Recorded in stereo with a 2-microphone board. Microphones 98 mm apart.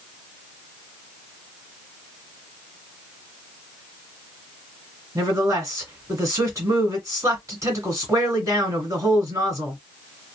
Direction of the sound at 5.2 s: 35° right (ahead or behind).